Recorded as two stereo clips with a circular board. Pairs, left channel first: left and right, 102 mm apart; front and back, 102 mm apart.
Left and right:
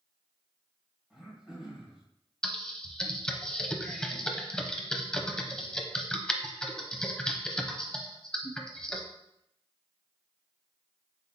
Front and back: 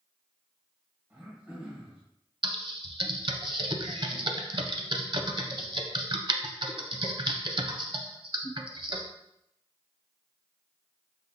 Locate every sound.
1.1 s throat clearing: 155° right, 1.6 m
2.4 s typing on a keyboard: 170° left, 0.5 m